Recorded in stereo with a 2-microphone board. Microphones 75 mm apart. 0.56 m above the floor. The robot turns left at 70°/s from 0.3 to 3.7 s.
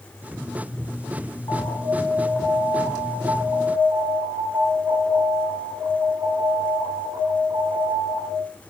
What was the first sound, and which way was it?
An alarm, 70° left.